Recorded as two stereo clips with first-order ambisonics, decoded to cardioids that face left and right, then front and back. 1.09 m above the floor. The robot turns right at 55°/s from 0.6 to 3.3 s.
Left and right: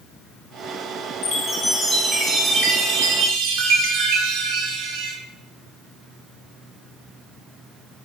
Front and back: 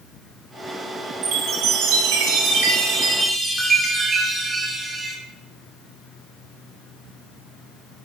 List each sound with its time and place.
1.2 s a chime: 140° left, 0.6 m; by 5.2 s 105° right, 0.6 m